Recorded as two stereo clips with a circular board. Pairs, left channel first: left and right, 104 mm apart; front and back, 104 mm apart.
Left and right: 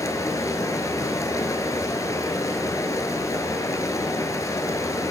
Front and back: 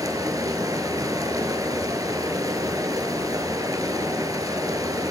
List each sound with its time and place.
0.0 s running water: 135° left, 0.9 m